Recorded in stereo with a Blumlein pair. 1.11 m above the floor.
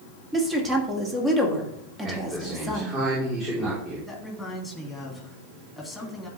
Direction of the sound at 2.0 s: 20° right.